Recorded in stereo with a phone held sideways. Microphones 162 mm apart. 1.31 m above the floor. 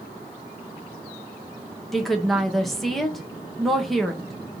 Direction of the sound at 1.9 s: Centre (ahead or behind).